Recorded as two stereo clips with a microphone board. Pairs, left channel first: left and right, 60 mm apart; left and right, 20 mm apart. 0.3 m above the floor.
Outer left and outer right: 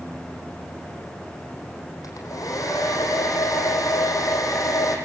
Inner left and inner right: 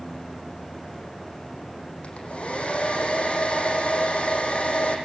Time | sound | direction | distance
2.0 | a hair dryer | 70° left (ahead or behind) | 5 m